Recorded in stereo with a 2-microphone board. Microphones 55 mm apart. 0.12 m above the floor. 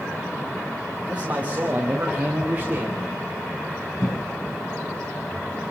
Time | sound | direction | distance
1.1 | a man speaking | 20° right (ahead or behind) | 8.5 m
4.0 | a cough | 70° left (ahead or behind) | 7 m